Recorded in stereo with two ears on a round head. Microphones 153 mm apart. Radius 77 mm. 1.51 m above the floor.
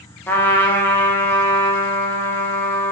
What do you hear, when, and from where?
0.3 s a trumpet: 10° left (ahead or behind), 0.5 m